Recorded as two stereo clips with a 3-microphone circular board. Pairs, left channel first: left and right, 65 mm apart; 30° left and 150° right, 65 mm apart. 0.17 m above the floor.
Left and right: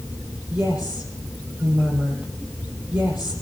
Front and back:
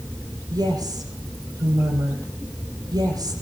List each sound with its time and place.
0.5 s a woman speaking: 150° right, 5.5 m